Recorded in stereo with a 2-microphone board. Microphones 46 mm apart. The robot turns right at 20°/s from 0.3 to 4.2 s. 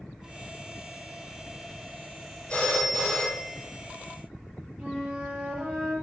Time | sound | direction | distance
2.5 | a phone ringing | 25° left (ahead or behind) | 4 m
4.8 | a flute | 15° right (ahead or behind) | 2.5 m